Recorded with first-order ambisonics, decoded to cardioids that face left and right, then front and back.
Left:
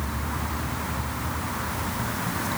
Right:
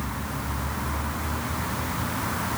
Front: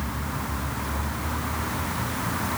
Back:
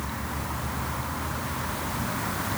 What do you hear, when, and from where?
Only background noise.